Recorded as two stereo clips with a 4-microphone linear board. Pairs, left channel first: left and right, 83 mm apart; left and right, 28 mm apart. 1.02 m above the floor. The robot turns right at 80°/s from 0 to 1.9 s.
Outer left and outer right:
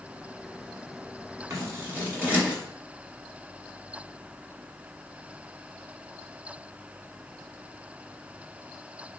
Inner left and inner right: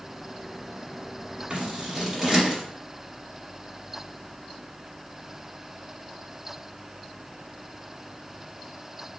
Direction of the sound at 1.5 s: 40° right (ahead or behind).